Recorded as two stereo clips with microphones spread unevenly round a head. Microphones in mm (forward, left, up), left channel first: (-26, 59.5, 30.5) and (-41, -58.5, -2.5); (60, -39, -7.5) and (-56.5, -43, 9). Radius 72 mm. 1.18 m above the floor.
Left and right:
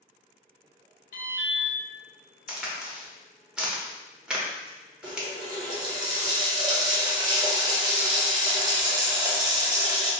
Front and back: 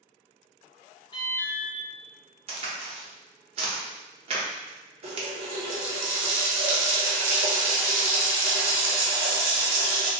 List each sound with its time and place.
1.1 s an alarm: 65° left, 0.7 m
2.5 s a crack: 160° right, 0.8 m
5.0 s a running tap: 160° right, 0.8 m